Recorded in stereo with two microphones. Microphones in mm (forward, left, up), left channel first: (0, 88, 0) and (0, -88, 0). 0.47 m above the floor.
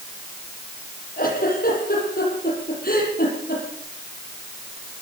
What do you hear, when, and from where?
1.2 s a giggle: 55° left (ahead or behind), 9.5 m